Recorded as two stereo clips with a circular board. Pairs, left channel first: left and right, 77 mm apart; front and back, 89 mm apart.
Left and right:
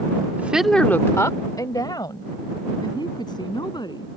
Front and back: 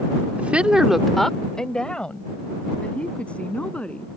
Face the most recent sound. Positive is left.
turn(degrees=75)